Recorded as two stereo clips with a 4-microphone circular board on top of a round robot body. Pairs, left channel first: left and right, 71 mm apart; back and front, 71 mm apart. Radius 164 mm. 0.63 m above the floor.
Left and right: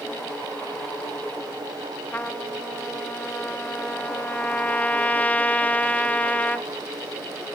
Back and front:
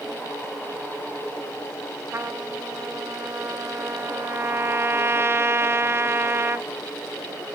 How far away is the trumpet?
About 0.8 m.